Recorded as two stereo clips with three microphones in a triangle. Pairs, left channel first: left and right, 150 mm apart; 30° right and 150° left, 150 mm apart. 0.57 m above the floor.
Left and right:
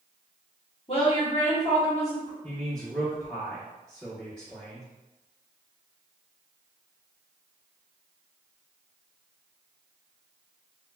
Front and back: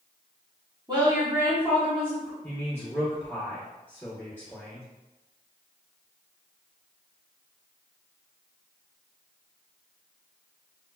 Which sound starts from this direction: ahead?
A man speaking, at 2.4 s.